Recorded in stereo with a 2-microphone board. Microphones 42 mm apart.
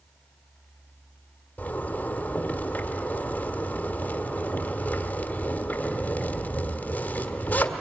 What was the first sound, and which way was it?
A zipper, 45° left (ahead or behind).